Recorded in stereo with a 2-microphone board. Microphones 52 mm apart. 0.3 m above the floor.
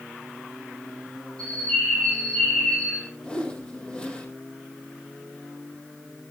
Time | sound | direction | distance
1.4 | a bird | 15° left (ahead or behind) | 9 m
3.2 | a whoosh | 20° left (ahead or behind) | 3.5 m